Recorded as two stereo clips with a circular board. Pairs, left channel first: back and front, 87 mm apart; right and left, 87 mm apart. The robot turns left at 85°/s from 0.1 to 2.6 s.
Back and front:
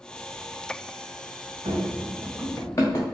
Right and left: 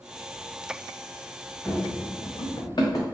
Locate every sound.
1.6 s running footsteps: straight ahead, 1.0 m; by 3.0 s 135° right, 1.2 m